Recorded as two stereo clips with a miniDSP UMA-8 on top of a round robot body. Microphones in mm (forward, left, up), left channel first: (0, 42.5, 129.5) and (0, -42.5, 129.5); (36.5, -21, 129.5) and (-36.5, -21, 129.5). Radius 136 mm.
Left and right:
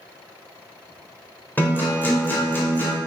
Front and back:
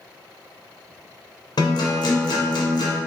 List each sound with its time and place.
1.6 s a guitar: 20° left, 1.3 m